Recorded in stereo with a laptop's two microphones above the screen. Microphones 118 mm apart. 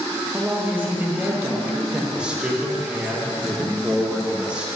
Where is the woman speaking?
15° right (ahead or behind), 0.9 m.